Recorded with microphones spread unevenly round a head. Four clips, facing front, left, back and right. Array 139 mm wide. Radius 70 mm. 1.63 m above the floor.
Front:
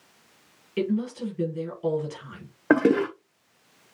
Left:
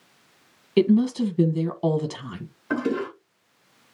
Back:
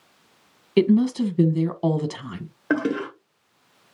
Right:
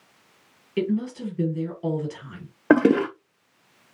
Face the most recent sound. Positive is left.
turn(degrees=-75)